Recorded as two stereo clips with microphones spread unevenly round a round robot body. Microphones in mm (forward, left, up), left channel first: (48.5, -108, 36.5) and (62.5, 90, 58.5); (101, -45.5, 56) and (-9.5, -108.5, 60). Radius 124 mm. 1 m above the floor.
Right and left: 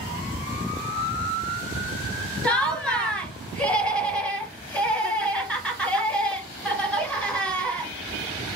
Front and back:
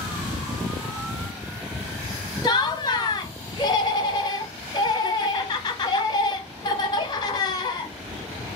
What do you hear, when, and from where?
2.4 s laughter: 15° right, 1.3 m